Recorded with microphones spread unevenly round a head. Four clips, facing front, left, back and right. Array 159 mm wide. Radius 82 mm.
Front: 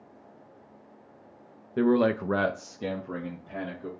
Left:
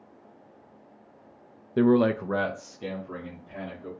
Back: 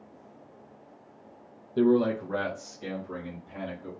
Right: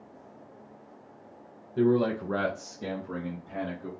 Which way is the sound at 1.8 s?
80° left.